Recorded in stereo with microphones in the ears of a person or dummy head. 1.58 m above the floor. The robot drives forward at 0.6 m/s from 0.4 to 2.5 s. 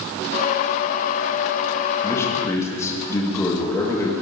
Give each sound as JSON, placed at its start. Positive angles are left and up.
{"t": 2.0, "sound": "a man speaking", "side_deg": 15, "distance_m": 2.5}